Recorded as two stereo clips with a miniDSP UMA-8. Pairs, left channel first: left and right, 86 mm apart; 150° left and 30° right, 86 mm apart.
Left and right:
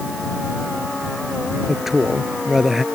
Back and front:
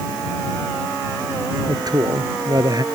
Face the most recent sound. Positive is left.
turn(degrees=-5)